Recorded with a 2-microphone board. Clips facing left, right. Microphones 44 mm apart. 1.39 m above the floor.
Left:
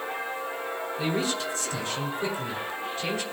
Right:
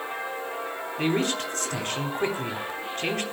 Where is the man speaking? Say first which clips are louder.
Right 4 dB; 60° right (ahead or behind), 3.5 m.